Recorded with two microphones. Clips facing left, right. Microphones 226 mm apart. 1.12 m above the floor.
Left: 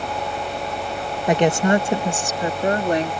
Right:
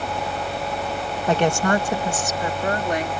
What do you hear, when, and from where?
1.3 s a woman speaking: 15° left (ahead or behind); by 3.1 s 35° left (ahead or behind)